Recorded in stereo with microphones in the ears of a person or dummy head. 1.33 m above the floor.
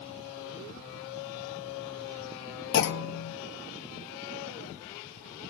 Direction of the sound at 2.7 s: 60° left (ahead or behind).